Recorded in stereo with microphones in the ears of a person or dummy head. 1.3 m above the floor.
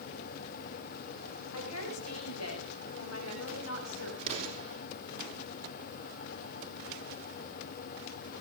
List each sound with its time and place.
1.5 s a woman speaking: 85° left, 7 m; by 4.1 s 70° left (ahead or behind), 8 m
4.2 s an explosion: 35° right (ahead or behind), 5.5 m